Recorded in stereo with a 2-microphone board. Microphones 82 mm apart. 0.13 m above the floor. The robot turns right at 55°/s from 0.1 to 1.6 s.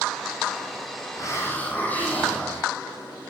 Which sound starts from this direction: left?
A hiss, at 1.1 s.